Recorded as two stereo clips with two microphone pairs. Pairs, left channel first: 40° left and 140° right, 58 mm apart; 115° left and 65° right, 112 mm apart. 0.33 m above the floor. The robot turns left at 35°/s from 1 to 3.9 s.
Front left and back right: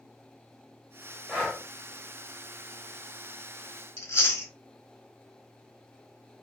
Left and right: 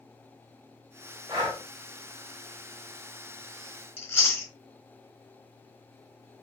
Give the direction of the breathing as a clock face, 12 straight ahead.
3 o'clock.